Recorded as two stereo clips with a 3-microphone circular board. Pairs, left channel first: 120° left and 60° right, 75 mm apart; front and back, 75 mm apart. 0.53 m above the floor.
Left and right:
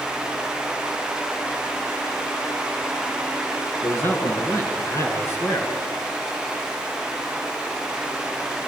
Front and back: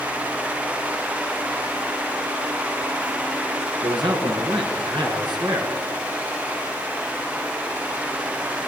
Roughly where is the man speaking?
Behind.